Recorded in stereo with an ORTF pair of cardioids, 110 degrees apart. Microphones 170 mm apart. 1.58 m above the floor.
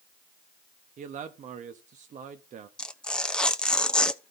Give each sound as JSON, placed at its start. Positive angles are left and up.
{"t": 1.0, "sound": "a man speaking", "azimuth_deg": -45, "distance_m": 1.0}
{"t": 2.8, "sound": "tearing paper", "azimuth_deg": 5, "distance_m": 0.7}